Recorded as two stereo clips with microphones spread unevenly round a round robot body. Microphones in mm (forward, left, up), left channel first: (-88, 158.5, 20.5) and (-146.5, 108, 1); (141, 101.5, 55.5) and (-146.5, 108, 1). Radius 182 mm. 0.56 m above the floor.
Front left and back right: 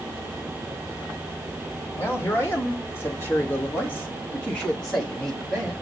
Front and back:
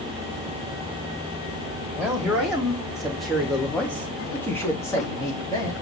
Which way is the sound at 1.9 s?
105° left.